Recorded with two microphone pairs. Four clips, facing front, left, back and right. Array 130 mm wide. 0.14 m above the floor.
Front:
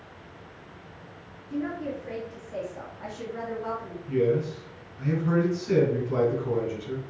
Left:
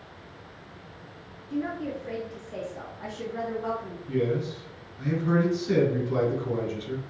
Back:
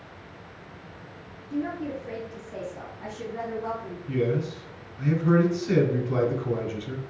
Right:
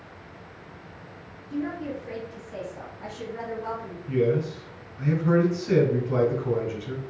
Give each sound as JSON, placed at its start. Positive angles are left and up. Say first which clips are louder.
{"t": 1.5, "sound": "a woman speaking", "louder": "even, back 1 dB", "azimuth_deg": 70, "distance_m": 1.9}
{"t": 4.1, "sound": "a man speaking", "louder": "right 3 dB, front 2 dB", "azimuth_deg": -135, "distance_m": 1.1}